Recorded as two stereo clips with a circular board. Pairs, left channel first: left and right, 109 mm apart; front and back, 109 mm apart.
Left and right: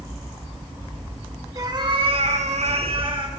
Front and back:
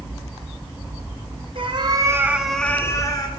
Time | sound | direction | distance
1.6 | a cat meowing | 145° right | 1.5 m